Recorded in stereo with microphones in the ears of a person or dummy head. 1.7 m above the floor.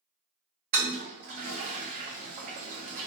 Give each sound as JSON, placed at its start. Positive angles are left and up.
{"t": 0.7, "sound": "a toilet flushing", "side_deg": -50, "distance_m": 0.7}